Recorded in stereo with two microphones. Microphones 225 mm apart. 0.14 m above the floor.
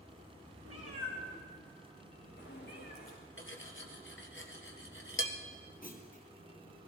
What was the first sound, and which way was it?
A cat meowing, 85° left.